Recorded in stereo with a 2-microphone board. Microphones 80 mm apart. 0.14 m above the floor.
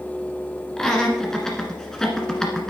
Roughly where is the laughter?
Centre.